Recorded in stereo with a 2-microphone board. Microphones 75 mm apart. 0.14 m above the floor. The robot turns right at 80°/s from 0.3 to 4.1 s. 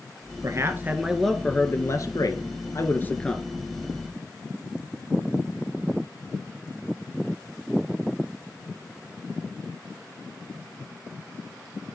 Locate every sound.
0.4 s a man speaking: 65° right, 1.7 m; by 3.5 s 175° right, 1.7 m